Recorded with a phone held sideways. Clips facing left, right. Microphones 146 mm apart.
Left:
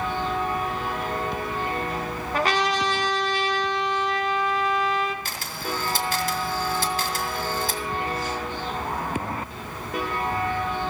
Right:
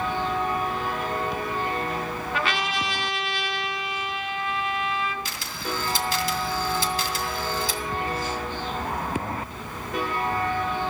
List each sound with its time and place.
2.3 s a trumpet: 40° left (ahead or behind), 1.7 m
5.2 s a camera shutter: 50° left (ahead or behind), 2 m